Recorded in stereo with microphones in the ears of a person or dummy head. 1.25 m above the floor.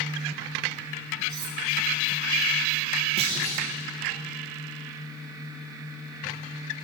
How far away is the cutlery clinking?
About 2.5 m.